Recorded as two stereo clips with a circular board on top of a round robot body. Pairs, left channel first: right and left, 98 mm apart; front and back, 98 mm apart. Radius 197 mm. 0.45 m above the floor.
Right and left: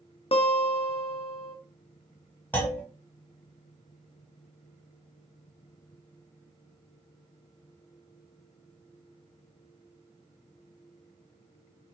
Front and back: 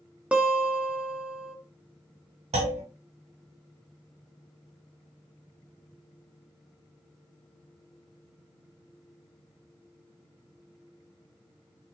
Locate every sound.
0.3 s a guitar: 100° right, 0.7 m
2.5 s a clunk: 165° right, 1.1 m